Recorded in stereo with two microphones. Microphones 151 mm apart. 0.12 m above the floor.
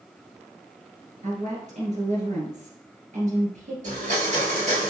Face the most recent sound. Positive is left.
turn(degrees=-50)  # may be behind; listen again after turning